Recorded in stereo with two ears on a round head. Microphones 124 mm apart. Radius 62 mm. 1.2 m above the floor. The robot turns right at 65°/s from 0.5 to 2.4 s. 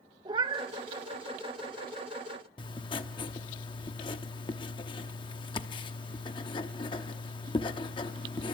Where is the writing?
35° left (ahead or behind), 0.8 m.